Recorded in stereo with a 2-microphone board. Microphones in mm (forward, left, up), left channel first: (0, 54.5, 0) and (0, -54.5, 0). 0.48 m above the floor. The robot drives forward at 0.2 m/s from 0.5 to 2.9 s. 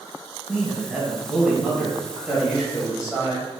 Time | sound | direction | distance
0.5 | a man speaking | 5° right (ahead or behind) | 1.6 m